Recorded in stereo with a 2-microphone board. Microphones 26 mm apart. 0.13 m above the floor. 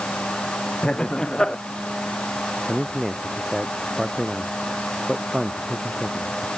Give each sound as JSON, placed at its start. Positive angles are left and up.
{"t": 0.8, "sound": "laughter", "side_deg": 25}
{"t": 2.7, "sound": "a man speaking", "side_deg": -10}